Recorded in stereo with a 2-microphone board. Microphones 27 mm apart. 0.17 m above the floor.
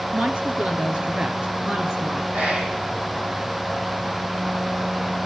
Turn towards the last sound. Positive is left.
turn(degrees=-70)  # may be behind; listen again after turning